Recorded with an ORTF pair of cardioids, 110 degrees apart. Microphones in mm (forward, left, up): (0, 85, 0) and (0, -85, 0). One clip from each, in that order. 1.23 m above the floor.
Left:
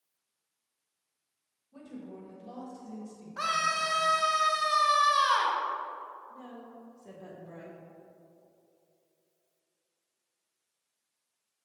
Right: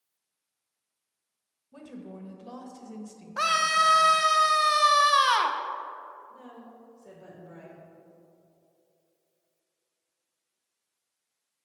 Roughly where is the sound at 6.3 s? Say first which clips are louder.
Left 1 dB; ahead.